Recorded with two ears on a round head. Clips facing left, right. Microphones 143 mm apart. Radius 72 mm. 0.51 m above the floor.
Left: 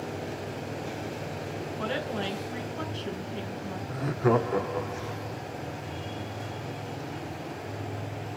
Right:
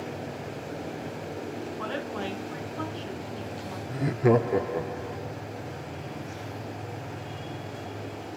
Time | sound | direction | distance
1.8 | a woman speaking | 30° left (ahead or behind) | 3.5 m
3.9 | laughter | 20° right (ahead or behind) | 0.7 m